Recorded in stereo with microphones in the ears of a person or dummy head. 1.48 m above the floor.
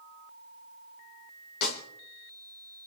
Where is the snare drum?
65° left (ahead or behind), 3.5 m.